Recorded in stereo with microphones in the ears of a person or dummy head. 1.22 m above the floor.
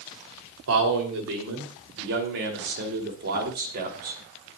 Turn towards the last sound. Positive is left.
turn(degrees=-50)  # may be behind; listen again after turning